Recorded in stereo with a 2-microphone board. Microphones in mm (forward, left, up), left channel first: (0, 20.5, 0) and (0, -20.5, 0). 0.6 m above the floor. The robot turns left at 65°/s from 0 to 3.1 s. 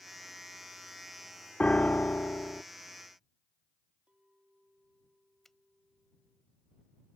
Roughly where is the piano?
Behind left.